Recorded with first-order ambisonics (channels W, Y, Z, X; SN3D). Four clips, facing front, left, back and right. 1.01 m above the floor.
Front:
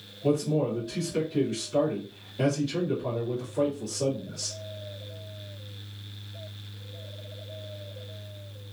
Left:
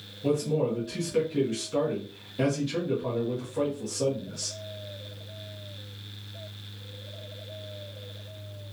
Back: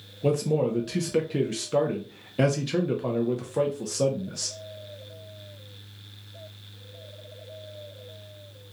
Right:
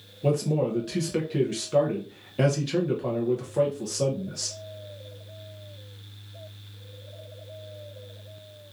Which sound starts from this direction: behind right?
A man speaking, at 0.2 s.